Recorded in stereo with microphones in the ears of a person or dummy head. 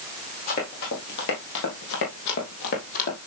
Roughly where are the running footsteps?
Left.